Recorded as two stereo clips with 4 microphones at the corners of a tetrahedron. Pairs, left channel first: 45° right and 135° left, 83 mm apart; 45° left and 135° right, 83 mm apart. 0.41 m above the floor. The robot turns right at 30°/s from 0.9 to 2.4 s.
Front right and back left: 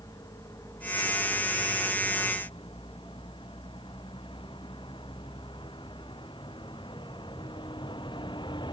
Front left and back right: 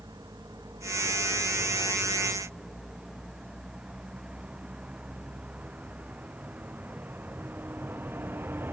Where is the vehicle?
90° right; by 8.7 s 70° right.